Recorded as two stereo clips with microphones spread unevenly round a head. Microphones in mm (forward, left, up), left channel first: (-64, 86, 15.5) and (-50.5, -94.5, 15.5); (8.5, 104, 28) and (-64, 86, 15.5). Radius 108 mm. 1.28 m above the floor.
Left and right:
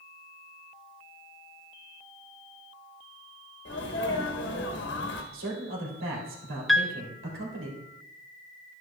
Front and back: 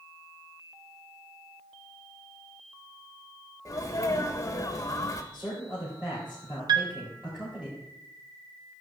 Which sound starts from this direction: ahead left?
A sneeze, at 3.6 s.